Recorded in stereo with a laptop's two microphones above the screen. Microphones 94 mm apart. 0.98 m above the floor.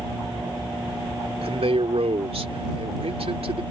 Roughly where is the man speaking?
Right.